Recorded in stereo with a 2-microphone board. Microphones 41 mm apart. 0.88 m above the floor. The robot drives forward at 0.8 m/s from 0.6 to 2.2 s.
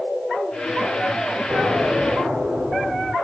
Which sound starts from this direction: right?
An explosion, at 1.5 s.